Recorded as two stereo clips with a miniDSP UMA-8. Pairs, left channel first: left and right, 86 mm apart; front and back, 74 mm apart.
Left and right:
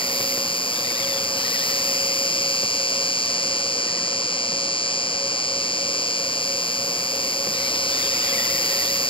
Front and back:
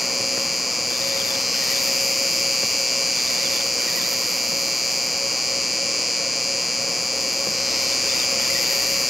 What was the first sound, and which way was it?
An insect, 90° left.